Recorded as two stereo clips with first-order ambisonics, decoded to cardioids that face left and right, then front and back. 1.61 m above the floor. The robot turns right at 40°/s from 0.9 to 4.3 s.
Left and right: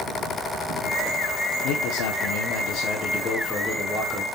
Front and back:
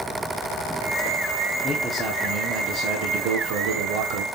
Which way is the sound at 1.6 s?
85° left.